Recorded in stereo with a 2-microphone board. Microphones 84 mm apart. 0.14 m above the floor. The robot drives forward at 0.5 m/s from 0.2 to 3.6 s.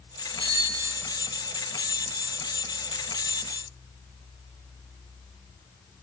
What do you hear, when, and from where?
0.4 s a bicycle bell: 75° right (ahead or behind), 8.5 m